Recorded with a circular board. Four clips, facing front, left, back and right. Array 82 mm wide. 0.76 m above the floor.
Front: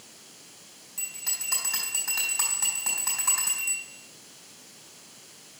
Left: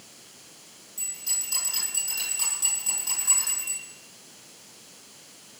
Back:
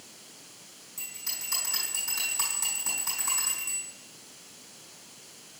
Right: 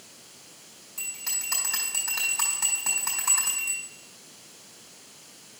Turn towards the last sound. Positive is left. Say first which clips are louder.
# right 4 dB, front 3 dB
turn(degrees=-50)